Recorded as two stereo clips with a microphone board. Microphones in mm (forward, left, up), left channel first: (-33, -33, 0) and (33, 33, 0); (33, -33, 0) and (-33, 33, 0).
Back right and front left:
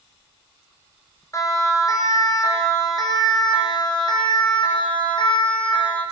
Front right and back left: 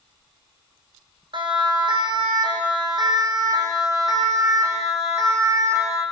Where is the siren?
165° left, 5.5 m; by 6.0 s 165° right, 7 m.